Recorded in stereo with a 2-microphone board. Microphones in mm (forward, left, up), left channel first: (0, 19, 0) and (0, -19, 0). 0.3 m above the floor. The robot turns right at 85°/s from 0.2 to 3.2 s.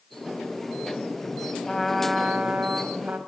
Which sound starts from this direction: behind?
A trumpet, at 1.6 s.